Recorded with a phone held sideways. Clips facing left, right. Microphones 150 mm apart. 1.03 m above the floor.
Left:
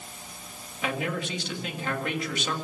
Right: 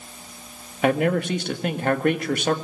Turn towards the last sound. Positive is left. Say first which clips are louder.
# right 10 dB
turn(degrees=-55)  # may be behind; listen again after turning